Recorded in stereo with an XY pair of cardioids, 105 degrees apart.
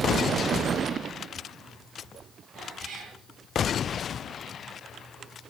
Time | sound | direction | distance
2.5 | a cat meowing | 50° right | 7.5 m